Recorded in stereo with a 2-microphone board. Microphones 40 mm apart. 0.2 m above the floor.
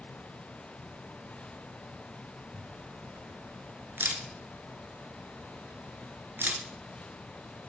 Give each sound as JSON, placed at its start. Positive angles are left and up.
{"t": 2.5, "sound": "a camera shutter", "side_deg": -70, "distance_m": 0.9}